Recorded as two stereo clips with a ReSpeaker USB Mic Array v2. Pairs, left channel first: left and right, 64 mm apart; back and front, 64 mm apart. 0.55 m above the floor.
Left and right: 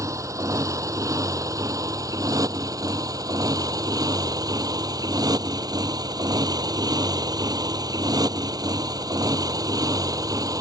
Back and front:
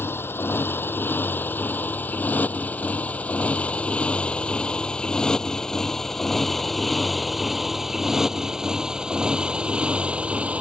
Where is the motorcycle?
125° right; by 10.6 s 70° right.